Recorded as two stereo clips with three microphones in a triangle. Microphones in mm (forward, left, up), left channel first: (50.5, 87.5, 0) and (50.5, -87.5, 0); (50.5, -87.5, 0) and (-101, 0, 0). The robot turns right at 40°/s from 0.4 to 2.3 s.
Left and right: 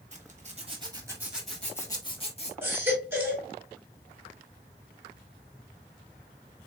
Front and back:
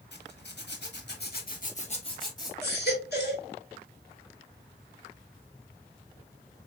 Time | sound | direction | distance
0.1 | a zipper | 40° right | 1.4 m
2.6 | a baby crying | 10° right | 1.8 m